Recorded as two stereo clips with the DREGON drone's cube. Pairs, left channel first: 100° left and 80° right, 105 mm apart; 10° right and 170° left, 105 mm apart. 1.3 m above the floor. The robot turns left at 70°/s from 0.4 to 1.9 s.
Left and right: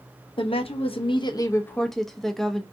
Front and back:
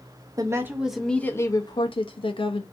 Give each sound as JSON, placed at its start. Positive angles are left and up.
{"t": 0.4, "sound": "a woman speaking", "azimuth_deg": 120, "distance_m": 0.5}